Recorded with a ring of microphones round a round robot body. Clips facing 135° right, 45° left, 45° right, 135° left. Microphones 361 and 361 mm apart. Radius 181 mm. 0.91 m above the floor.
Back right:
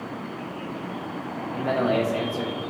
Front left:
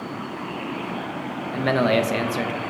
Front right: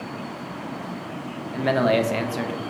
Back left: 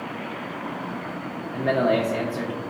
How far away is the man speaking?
About 0.6 m.